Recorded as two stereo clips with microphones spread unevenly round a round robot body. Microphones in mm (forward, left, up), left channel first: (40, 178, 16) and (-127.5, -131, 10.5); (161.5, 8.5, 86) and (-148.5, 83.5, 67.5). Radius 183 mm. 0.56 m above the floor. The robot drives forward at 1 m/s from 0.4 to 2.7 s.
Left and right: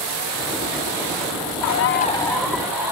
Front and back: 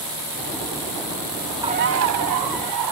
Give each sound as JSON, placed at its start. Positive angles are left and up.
{"t": 1.6, "sound": "a bird", "azimuth_deg": 90, "distance_m": 0.5}